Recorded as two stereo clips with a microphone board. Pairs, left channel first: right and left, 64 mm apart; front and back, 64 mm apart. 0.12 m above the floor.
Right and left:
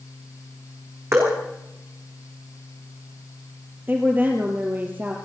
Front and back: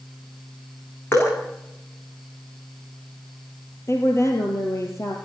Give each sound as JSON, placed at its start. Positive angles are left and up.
{"t": 1.1, "sound": "dripping", "azimuth_deg": 45, "distance_m": 7.0}
{"t": 3.9, "sound": "a woman speaking", "azimuth_deg": 35, "distance_m": 2.5}